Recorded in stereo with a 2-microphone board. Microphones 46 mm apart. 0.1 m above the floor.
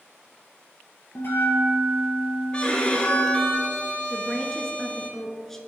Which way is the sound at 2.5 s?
25° left (ahead or behind).